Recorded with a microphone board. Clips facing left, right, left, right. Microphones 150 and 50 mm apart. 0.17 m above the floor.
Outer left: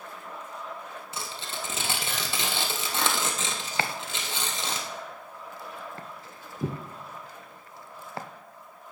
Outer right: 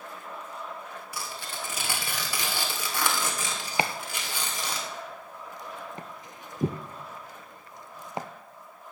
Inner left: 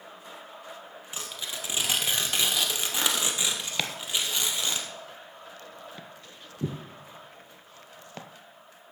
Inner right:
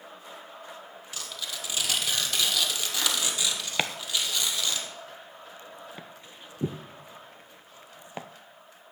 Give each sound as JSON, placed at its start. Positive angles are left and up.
{"t": 1.1, "sound": "tearing paper", "side_deg": 25, "distance_m": 2.0}
{"t": 3.8, "sound": "chopping", "side_deg": -20, "distance_m": 0.7}